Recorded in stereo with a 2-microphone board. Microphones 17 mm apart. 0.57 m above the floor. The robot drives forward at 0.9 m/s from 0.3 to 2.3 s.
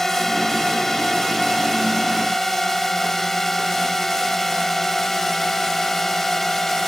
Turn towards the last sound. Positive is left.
turn(degrees=15)  # may be behind; listen again after turning